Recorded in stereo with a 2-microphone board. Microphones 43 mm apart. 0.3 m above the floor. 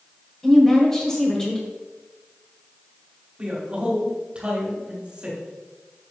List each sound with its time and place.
0.4 s a woman speaking: 10° left (ahead or behind), 1.4 m
3.4 s a man speaking: 25° right (ahead or behind), 2 m